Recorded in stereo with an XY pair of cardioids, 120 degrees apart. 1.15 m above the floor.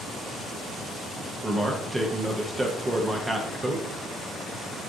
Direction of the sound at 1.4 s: 10° right.